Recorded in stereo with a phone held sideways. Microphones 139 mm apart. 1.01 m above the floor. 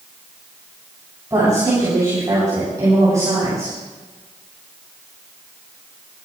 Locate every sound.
1.3 s a woman speaking: 20° right (ahead or behind), 8.5 m